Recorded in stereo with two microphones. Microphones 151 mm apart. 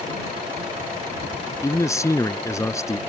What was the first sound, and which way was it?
A man speaking, 20° left (ahead or behind).